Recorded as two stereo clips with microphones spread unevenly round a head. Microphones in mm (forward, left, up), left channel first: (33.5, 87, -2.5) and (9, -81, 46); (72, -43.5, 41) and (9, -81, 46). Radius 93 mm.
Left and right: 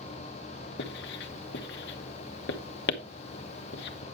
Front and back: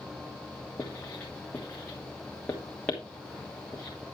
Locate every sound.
0.8 s writing: 110° left, 1.1 m